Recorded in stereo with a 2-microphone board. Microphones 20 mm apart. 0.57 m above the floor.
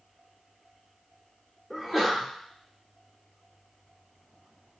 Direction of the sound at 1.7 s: 5° right (ahead or behind).